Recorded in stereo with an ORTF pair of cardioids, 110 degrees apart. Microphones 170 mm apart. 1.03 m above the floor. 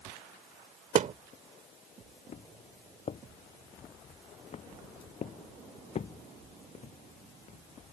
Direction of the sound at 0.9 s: 50° right.